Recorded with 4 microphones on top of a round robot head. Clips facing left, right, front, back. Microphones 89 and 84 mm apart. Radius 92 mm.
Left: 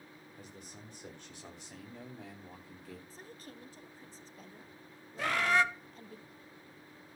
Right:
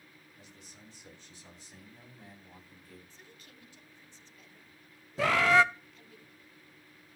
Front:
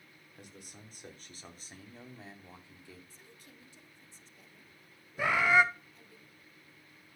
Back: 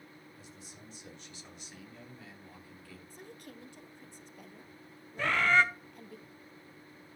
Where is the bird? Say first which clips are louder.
Right 5 dB, front 1 dB; 85° right, 0.7 m.